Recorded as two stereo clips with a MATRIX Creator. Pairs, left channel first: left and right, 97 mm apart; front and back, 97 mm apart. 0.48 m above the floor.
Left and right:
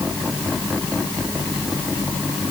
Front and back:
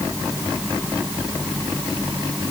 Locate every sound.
Only background noise.